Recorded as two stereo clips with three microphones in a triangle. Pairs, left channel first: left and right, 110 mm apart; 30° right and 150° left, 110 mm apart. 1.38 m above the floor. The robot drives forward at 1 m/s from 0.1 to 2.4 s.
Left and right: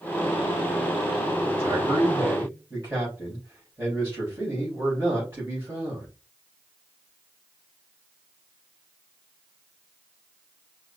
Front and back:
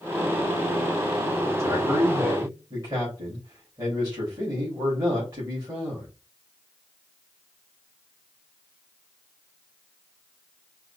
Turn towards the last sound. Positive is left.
turn(degrees=-160)